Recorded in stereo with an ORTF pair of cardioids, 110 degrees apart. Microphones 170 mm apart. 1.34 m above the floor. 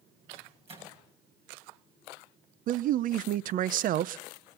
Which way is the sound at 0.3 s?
35° right.